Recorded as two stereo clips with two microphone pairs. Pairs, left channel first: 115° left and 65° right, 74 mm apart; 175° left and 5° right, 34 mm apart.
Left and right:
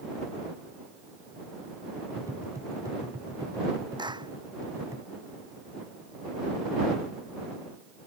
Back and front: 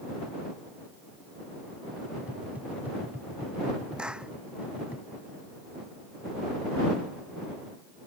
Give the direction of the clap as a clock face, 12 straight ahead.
2 o'clock.